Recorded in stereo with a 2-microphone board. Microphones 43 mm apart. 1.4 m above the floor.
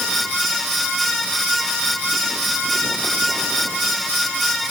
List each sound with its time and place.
Only background noise.